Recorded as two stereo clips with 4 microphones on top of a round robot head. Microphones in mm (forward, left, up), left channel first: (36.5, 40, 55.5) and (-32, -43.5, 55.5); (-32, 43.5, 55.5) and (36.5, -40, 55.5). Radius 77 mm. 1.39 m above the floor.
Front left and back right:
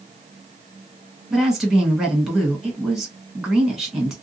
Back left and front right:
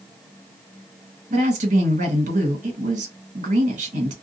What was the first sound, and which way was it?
A woman speaking, 45° right.